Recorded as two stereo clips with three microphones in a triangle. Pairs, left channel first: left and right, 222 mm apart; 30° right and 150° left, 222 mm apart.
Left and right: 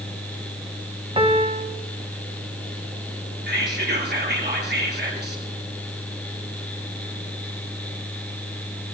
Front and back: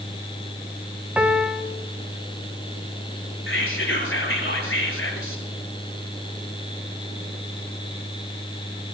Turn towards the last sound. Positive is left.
turn(degrees=-50)